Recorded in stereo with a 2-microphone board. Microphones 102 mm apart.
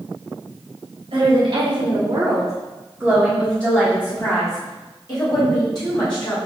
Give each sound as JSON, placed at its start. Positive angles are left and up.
{"t": 1.1, "sound": "a woman speaking", "side_deg": -70, "distance_m": 1.1}